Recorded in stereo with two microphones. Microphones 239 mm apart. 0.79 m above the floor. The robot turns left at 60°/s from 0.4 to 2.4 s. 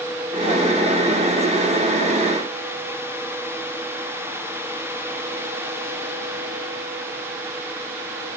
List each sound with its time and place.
Only background noise.